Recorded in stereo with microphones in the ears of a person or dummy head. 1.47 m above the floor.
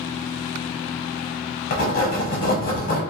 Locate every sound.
1.7 s writing: 50° left (ahead or behind), 0.8 m